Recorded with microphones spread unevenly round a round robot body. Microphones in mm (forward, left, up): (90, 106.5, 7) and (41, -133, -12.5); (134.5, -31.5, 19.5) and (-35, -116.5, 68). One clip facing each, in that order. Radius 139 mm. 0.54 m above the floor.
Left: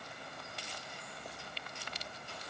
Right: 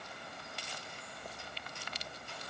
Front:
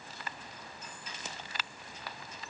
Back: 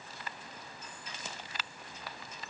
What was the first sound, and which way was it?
Only background noise.